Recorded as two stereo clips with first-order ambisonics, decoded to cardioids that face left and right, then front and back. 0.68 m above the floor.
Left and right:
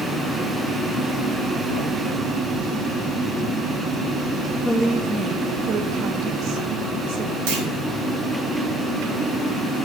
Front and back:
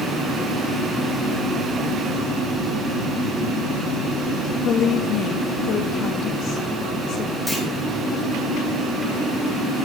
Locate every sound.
4.7 s a woman speaking: 5° left, 0.6 m; by 7.4 s 50° right, 2.0 m
7.5 s a clunk: 85° right, 4 m